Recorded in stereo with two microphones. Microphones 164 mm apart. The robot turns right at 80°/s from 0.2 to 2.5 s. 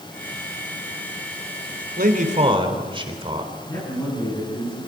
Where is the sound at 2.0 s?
75° right, 3.5 m; by 3.5 s 35° right, 3.5 m.